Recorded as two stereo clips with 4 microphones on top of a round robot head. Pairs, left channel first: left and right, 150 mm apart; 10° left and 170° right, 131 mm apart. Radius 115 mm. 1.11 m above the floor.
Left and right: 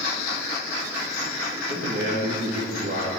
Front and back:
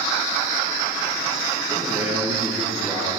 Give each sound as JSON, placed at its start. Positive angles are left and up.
{"t": 1.7, "sound": "a man speaking", "azimuth_deg": -100, "distance_m": 2.5}